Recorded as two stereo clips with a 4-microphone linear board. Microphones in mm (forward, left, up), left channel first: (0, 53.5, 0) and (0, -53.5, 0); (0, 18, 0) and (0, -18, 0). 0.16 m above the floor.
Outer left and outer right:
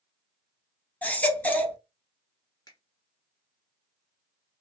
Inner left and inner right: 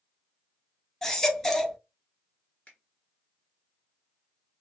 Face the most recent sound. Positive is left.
turn(degrees=35)  # may be behind; listen again after turning